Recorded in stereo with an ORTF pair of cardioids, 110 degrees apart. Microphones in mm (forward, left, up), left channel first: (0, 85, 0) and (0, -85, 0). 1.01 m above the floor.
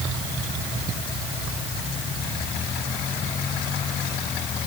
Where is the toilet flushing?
No toilet flushing in this recording.